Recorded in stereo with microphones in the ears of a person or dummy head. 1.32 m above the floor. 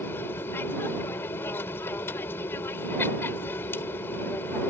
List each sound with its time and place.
0.0 s an aircraft: 15° left (ahead or behind)